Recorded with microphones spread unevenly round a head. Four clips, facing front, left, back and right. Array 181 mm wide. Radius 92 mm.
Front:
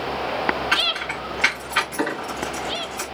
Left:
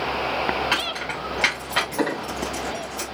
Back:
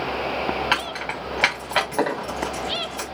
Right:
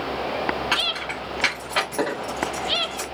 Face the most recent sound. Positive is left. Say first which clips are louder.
# left 1 dB, even
turn(degrees=-165)